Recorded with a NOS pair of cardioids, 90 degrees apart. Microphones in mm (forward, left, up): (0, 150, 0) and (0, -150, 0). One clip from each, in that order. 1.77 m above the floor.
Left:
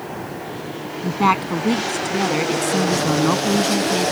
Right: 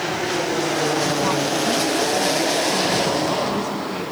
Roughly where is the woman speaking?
Ahead left.